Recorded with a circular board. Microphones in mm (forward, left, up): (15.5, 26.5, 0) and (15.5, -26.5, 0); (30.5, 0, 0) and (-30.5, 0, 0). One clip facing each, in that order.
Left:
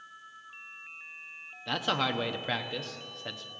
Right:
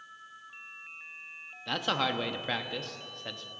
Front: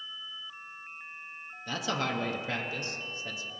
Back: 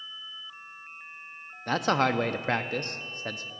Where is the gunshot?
No gunshot in this recording.